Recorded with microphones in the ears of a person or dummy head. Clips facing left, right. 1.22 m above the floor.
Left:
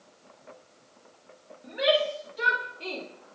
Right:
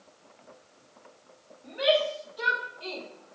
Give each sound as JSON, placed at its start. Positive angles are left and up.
{"t": 1.6, "sound": "a shout", "side_deg": 20, "distance_m": 2.0}